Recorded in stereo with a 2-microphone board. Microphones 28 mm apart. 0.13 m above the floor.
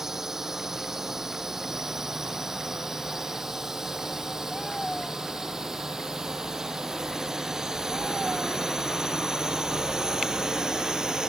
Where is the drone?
15° right (ahead or behind); by 11.3 s 25° right (ahead or behind).